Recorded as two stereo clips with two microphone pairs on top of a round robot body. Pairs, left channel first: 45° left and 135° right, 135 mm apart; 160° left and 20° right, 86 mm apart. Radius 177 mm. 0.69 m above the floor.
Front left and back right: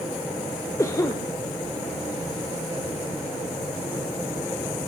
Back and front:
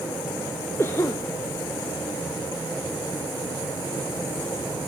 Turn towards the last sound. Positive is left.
turn(degrees=115)